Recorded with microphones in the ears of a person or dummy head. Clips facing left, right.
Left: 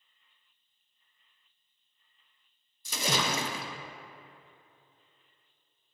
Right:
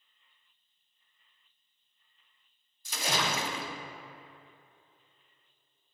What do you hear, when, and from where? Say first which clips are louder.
2.9 s a splash: left 1 dB; 80° left, 0.6 m